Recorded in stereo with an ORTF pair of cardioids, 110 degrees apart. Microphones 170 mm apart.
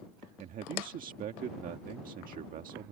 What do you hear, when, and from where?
0.4 s a man speaking: 55° right